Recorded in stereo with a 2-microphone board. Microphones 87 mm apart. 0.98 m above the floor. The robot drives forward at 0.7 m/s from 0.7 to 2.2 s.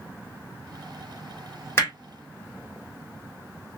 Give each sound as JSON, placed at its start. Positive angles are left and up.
{"t": 1.8, "sound": "hammering", "side_deg": 30, "distance_m": 3.0}